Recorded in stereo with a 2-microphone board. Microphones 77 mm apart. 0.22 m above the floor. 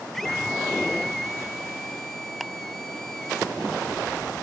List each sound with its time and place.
0.1 s a scream: 5° left (ahead or behind)
2.4 s ticking: centre (ahead or behind)